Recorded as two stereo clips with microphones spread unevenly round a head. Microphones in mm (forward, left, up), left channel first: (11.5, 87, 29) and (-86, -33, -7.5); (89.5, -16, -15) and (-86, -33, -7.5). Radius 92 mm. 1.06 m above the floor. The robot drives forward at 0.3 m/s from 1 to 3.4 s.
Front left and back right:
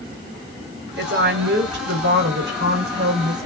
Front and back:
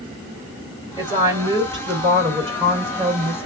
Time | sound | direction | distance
1.0 | a woman speaking | 105° right | 3 m